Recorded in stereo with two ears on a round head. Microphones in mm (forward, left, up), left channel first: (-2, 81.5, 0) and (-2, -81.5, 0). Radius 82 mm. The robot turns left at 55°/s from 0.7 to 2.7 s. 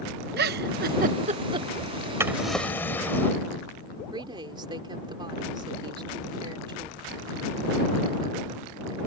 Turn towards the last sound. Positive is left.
turn(degrees=-25)  # may be behind; listen again after turning